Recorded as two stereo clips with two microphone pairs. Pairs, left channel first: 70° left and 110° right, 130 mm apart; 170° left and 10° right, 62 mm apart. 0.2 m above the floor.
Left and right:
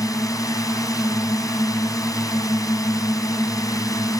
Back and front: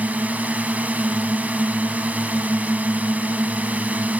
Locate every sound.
0.0 s a drone: 30° left